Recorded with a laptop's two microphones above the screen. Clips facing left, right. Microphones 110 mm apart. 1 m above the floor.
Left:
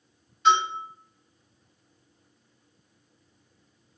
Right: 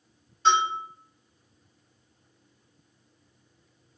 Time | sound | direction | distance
0.5 | a bell | 35° right (ahead or behind) | 1.6 m